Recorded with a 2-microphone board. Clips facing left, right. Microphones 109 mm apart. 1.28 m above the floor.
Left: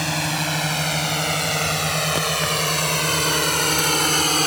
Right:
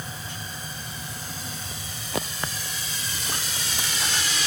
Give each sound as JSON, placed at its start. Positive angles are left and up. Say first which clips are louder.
{"t": 0.0, "sound": "a drone", "louder": "left 13 dB", "side_deg": 85}